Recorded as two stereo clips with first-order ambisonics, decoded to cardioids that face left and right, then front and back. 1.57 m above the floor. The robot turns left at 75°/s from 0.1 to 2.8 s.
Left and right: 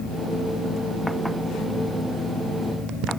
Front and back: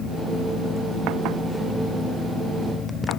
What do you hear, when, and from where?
Only background noise.